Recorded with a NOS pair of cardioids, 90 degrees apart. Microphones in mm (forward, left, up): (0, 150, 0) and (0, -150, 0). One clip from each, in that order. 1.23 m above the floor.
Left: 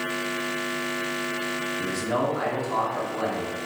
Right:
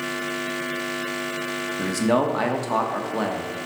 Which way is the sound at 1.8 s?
60° right.